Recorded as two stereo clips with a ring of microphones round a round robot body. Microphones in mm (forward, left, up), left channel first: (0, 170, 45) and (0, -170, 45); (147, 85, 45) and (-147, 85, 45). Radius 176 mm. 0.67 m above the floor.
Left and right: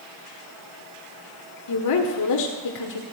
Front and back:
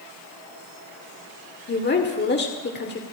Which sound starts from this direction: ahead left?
A woman speaking, at 1.7 s.